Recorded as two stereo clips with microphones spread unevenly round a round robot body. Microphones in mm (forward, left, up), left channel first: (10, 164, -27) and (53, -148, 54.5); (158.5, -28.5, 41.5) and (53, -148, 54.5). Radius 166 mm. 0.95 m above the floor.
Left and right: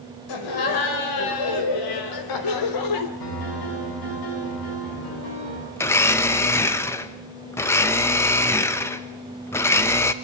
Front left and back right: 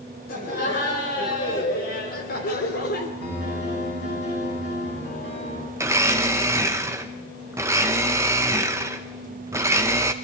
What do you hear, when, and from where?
0.3 s laughter: 100° left, 4.5 m; by 3.1 s 85° left, 3 m
3.2 s a piano: 85° left, 9.5 m
5.8 s a blender: 155° left, 0.7 m